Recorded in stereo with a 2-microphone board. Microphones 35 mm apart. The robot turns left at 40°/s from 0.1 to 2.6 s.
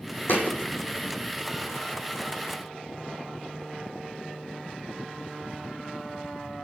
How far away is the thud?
About 1.4 m.